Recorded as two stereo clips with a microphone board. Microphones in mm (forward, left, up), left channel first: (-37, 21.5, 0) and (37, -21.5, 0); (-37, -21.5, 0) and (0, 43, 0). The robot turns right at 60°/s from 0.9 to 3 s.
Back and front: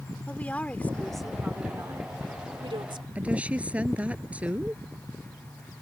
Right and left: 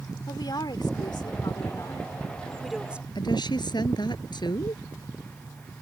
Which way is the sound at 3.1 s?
105° right.